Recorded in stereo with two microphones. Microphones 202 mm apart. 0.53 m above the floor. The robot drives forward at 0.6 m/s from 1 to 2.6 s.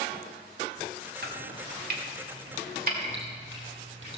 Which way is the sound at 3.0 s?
65° right (ahead or behind).